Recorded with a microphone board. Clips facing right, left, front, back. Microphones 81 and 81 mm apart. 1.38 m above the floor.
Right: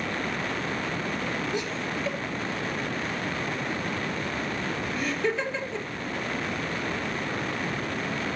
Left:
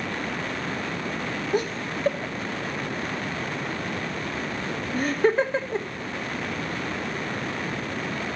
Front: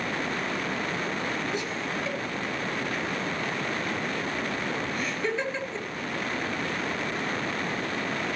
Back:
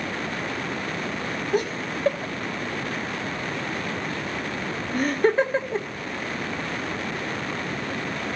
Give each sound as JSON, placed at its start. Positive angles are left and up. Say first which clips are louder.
{"t": 1.5, "sound": "laughter", "louder": "left 4 dB, back 5 dB", "azimuth_deg": 135, "distance_m": 1.6}